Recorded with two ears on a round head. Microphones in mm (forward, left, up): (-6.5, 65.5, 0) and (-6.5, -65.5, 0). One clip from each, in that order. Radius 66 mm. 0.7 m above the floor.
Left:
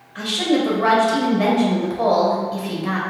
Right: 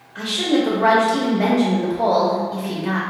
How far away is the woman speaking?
About 0.9 m.